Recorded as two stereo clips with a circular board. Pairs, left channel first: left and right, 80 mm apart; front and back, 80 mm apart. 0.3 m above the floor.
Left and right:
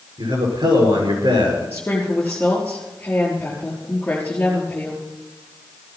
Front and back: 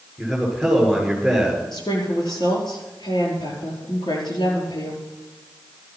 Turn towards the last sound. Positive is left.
turn(degrees=20)